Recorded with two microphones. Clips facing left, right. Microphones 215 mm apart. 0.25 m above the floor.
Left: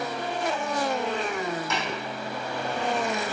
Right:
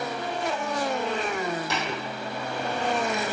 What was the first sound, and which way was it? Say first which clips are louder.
Tapping: even; 35° right (ahead or behind).